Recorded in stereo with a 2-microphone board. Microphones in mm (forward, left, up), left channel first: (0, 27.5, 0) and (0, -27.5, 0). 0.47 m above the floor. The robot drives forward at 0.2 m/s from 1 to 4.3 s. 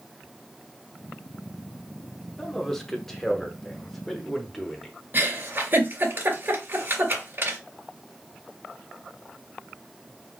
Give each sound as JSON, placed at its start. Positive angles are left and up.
{"t": 2.4, "sound": "a man speaking", "side_deg": 10, "distance_m": 0.8}
{"t": 5.1, "sound": "a giggle", "side_deg": -45, "distance_m": 2.5}